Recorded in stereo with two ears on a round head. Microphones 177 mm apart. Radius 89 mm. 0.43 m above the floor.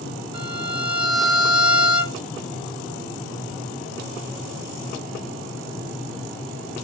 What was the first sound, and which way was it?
A violin, 25° right (ahead or behind).